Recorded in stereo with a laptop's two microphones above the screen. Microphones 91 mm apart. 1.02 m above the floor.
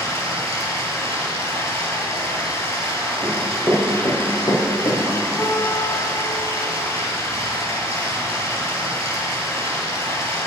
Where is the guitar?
30° left (ahead or behind), 2.5 m.